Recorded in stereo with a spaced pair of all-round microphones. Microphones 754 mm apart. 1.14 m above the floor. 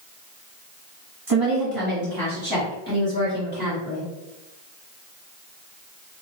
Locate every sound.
1.3 s a woman speaking: 30° right (ahead or behind), 1.6 m; by 4.1 s 10° right (ahead or behind), 3 m